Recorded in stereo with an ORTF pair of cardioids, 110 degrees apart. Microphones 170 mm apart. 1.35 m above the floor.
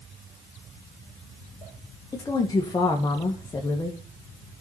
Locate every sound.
2.1 s a woman speaking: 20° left, 1.8 m